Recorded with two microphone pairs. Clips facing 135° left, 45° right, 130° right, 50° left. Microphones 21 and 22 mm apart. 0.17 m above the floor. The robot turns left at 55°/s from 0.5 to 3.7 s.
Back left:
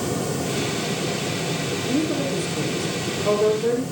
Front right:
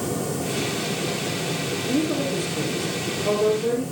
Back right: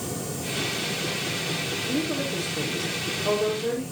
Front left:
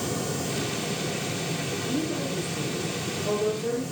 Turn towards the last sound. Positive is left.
turn(degrees=170)